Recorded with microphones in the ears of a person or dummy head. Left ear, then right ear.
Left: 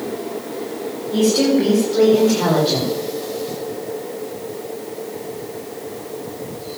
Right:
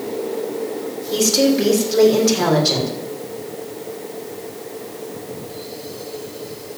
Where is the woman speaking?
85° right, 5 m; by 2.9 s 75° right (ahead or behind), 6 m.